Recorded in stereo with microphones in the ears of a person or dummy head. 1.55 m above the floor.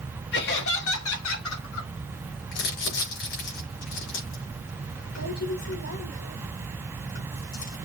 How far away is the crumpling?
About 4.5 m.